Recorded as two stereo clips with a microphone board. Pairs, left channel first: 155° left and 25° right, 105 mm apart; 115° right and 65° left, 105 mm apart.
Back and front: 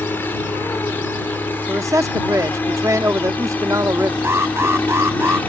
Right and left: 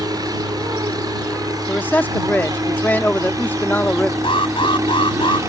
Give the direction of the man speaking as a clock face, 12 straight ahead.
2 o'clock.